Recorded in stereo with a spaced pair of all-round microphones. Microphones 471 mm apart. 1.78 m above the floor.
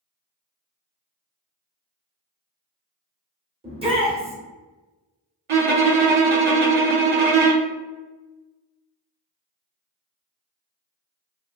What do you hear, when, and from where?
3.6 s a shout: 10° right (ahead or behind), 1.0 m
5.5 s a violin: 80° right, 0.5 m